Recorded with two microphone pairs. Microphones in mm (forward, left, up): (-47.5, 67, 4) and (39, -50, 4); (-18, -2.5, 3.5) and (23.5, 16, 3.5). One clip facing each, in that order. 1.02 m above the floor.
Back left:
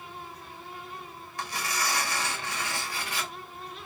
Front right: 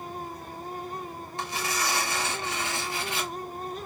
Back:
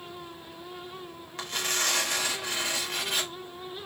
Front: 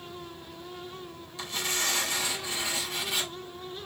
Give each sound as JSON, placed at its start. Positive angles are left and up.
{"t": 1.4, "sound": "tearing paper", "azimuth_deg": -120, "distance_m": 1.6}